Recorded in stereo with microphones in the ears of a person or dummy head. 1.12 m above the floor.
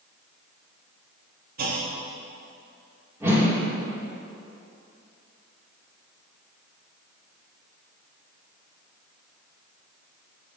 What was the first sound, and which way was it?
A clunk, 50° right (ahead or behind).